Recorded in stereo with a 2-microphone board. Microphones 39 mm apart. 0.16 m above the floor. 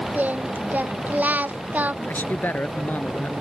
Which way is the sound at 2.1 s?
50° left (ahead or behind).